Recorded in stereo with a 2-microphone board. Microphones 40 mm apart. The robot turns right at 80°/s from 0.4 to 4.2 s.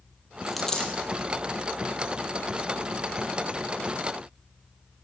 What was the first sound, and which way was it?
A dropped coin, 5° right (ahead or behind).